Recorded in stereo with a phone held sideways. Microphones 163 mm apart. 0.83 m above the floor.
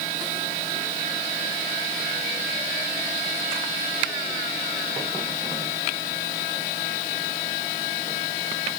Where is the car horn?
I don't hear a car horn.